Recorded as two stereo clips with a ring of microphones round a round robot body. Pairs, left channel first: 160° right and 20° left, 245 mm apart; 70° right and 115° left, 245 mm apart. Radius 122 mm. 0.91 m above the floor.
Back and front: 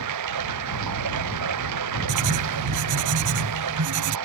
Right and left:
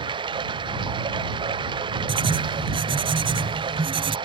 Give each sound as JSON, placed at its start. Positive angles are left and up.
{"t": 0.0, "sound": "running water", "azimuth_deg": 40}
{"t": 2.1, "sound": "writing", "azimuth_deg": 40}